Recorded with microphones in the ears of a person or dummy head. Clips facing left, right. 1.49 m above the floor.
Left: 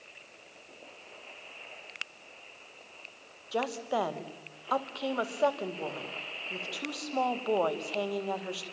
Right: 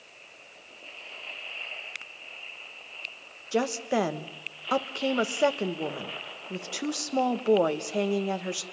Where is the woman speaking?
30° right (ahead or behind), 1.6 m.